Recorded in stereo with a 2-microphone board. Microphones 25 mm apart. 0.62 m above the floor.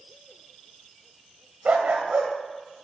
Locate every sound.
1.6 s a dog barking: 85° right, 1.0 m